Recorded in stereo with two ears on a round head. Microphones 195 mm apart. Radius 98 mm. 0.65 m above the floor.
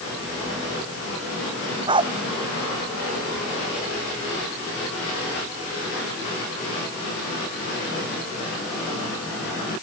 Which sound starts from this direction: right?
A dog barking, at 1.9 s.